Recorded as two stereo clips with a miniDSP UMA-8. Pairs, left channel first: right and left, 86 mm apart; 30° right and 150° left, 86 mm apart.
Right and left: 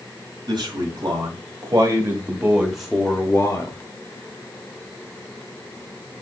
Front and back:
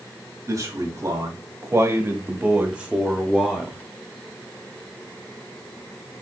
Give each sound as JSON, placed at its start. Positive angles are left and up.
{"t": 0.5, "sound": "a man speaking", "azimuth_deg": 105, "distance_m": 1.8}